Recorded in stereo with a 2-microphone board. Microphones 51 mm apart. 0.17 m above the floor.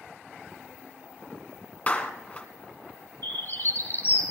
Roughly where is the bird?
Left.